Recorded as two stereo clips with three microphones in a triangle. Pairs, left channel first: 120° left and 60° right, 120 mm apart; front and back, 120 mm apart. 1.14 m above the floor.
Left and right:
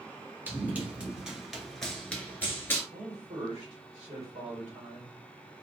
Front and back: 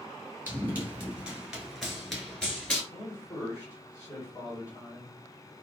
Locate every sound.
0.5 s running footsteps: 120° right, 1.3 m; by 2.8 s 70° left, 1.2 m
2.9 s a man speaking: 55° right, 1.3 m